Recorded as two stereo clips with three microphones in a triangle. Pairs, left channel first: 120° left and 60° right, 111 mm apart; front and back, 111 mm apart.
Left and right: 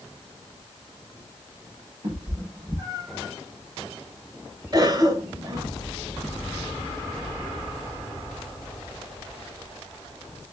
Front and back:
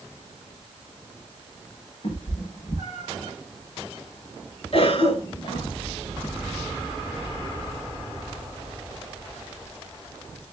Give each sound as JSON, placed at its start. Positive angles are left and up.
{"t": 2.0, "sound": "a cat meowing", "azimuth_deg": -20, "distance_m": 4.0}
{"t": 4.7, "sound": "a cough", "azimuth_deg": -15, "distance_m": 2.5}